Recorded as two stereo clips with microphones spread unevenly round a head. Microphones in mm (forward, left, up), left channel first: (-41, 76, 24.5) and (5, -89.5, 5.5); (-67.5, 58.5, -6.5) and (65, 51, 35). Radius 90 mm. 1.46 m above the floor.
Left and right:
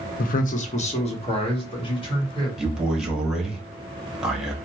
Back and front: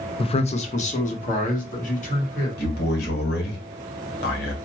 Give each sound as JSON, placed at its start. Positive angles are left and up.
{"t": 0.2, "sound": "a man speaking", "azimuth_deg": 140, "distance_m": 0.6}
{"t": 2.6, "sound": "a man speaking", "azimuth_deg": -165, "distance_m": 1.0}